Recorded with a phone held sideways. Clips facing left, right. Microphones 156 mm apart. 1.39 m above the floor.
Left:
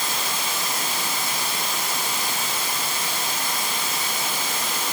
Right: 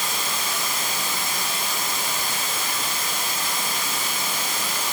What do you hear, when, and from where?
0.0 s running water: 80° left, 5 m